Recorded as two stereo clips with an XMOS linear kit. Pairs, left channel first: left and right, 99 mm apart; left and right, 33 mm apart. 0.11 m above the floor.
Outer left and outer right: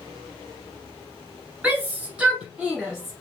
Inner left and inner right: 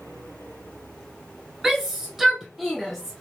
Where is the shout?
15° right (ahead or behind), 1.3 m; by 3.2 s 5° right (ahead or behind), 1.2 m.